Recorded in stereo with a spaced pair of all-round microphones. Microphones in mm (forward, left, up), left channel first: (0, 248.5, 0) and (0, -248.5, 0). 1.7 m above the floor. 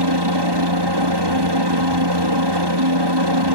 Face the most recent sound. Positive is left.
turn(degrees=-55)  # may be behind; listen again after turning